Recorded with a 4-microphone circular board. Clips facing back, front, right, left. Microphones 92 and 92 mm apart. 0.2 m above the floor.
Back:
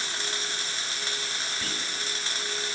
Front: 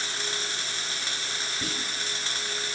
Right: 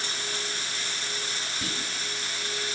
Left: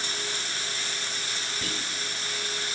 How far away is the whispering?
About 1.1 m.